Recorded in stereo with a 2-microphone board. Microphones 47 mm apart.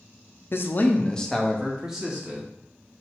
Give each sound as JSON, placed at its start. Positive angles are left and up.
{"t": 0.5, "sound": "a man speaking", "side_deg": 55, "distance_m": 0.6}